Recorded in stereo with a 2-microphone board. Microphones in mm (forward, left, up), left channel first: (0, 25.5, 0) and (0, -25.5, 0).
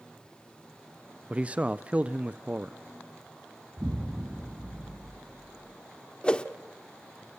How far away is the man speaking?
About 0.6 m.